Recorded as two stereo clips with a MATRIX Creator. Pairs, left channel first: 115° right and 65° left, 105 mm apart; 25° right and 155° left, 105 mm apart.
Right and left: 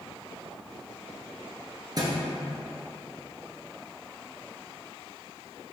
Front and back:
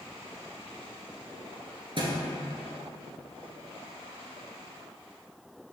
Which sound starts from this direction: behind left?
A thud, at 2.0 s.